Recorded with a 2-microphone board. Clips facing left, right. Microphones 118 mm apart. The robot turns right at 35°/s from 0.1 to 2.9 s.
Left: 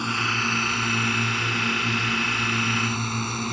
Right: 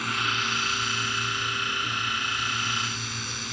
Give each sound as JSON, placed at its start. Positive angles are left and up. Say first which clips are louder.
{"t": 0.0, "sound": "a drone", "louder": "left 3 dB", "azimuth_deg": 25}